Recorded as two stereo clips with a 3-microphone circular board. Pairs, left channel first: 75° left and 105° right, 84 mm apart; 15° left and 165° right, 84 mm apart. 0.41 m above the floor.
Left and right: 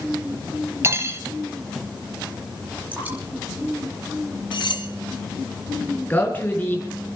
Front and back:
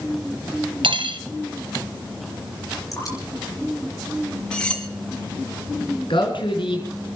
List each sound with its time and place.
0.8 s cutlery clinking: 160° right, 1.4 m
2.9 s dripping: 35° right, 6 m
4.5 s cutlery clinking: 95° left, 2 m
6.1 s a man speaking: 5° left, 5 m